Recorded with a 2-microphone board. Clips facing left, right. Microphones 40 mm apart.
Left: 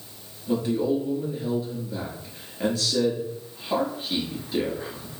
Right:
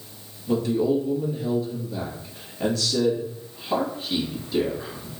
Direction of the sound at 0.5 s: 15° left (ahead or behind).